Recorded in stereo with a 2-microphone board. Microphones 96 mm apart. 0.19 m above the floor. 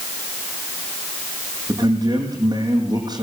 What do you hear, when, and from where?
1.7 s a man speaking: 50° right (ahead or behind), 6.5 m